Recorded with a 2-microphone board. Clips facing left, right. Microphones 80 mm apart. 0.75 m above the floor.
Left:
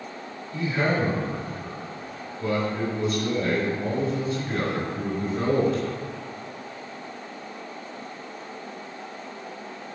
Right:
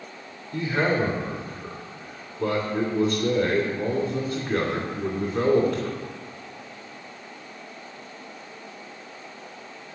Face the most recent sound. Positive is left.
turn(degrees=-60)  # may be behind; listen again after turning